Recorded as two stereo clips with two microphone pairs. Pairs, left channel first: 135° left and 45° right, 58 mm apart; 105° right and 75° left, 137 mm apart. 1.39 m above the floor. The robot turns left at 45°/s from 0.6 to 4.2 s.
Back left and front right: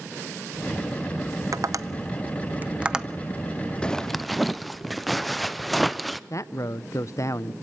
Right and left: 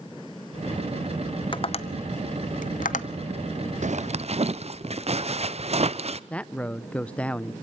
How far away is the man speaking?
About 0.6 m.